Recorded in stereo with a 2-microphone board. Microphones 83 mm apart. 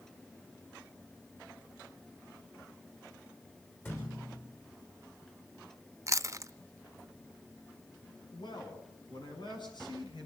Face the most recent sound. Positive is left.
turn(degrees=65)  # may be behind; listen again after turning